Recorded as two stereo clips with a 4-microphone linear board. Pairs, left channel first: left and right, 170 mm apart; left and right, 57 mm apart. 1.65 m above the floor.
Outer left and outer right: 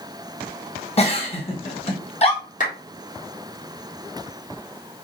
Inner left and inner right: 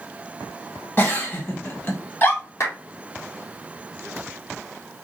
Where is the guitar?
No guitar in this recording.